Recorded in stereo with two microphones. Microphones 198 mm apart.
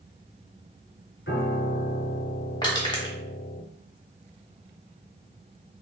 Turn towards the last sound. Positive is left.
turn(degrees=20)  # may be behind; listen again after turning